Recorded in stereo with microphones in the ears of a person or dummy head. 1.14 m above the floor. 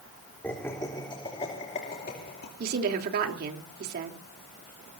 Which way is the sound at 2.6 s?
55° right (ahead or behind).